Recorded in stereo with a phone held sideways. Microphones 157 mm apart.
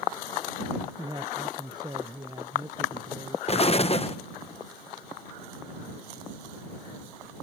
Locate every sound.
1.0 s a man speaking: 25° right (ahead or behind)
3.5 s an explosion: 40° left (ahead or behind)